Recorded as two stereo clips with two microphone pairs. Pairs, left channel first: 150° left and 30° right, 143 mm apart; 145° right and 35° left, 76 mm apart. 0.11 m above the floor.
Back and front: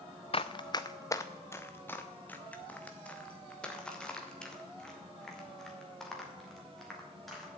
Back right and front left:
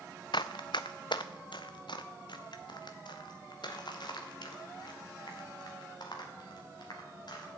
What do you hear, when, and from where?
0.3 s running footsteps: 160° right, 0.6 m; by 7.6 s 120° right, 4.5 m